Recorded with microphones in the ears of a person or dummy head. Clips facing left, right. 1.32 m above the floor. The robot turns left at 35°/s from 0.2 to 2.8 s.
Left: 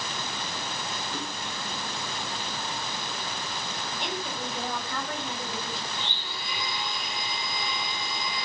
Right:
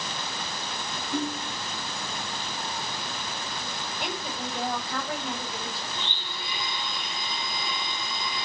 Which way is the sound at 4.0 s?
5° right (ahead or behind).